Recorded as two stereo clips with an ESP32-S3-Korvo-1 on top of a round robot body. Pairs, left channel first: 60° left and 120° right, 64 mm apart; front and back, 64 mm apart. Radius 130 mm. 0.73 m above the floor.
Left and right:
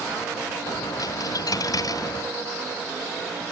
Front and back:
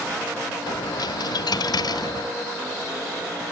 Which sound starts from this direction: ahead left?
A dropped coin, at 0.7 s.